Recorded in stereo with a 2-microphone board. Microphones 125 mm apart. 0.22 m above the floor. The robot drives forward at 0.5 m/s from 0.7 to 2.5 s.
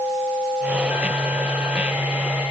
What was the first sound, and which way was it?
Only background noise.